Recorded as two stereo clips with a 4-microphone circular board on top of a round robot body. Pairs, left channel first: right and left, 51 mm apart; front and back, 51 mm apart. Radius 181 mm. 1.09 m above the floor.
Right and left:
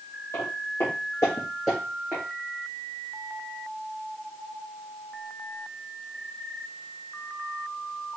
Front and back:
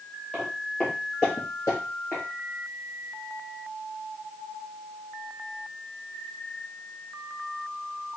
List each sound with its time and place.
0.3 s footsteps: 85° right, 1.4 m; by 2.2 s 55° left, 1.1 m